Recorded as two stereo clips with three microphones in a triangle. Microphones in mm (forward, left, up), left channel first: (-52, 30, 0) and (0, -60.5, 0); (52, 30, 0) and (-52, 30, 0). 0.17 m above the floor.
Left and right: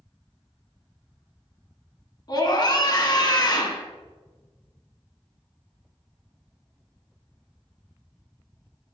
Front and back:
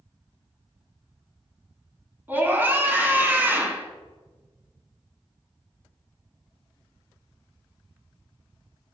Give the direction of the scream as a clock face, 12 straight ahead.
8 o'clock.